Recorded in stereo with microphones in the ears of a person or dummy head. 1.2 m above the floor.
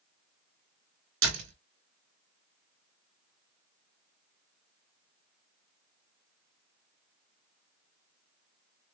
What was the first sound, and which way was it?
A door slam, 60° right (ahead or behind).